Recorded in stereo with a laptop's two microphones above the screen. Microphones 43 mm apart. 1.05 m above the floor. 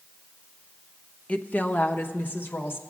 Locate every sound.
1.3 s a woman speaking: 30° left (ahead or behind), 0.6 m; by 2.8 s 50° left (ahead or behind), 1.4 m